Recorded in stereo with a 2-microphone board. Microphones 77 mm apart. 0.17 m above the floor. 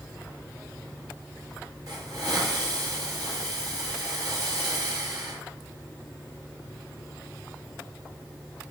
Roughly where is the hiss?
Right.